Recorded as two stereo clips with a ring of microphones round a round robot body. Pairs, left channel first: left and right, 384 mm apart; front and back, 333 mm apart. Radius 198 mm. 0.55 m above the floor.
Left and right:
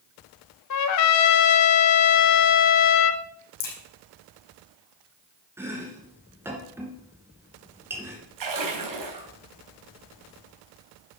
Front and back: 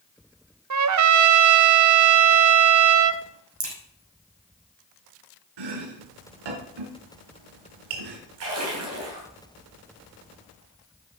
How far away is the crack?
About 5 m.